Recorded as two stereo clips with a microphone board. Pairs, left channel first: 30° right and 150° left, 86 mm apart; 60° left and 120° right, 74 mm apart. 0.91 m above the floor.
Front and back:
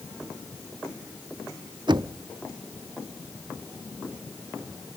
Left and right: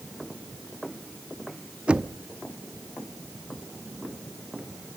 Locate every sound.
1.9 s knocking: 165° left, 0.9 m